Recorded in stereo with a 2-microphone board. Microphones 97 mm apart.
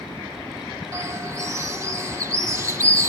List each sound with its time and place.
0.9 s a bird: 35° right (ahead or behind), 1.0 m